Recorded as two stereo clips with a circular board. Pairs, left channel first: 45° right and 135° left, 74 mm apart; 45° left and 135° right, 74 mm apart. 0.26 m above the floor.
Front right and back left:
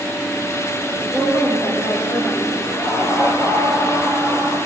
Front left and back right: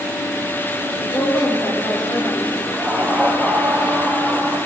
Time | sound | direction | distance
0.9 | a woman speaking | 5° left | 8.5 m
2.6 | laughter | 20° right | 8 m